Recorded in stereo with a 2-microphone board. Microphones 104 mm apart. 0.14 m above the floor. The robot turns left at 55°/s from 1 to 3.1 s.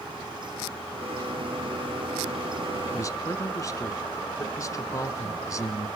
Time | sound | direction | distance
2.9 | a man speaking | 30° left (ahead or behind) | 1.6 m